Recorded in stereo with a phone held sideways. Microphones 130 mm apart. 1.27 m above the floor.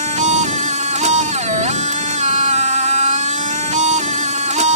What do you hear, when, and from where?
0.0 s a machine running: 65° right (ahead or behind)